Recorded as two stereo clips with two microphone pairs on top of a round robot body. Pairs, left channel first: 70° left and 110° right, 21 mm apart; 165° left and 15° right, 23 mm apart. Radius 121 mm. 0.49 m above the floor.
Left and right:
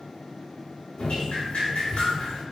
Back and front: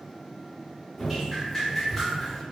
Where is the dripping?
85° left, 0.5 m.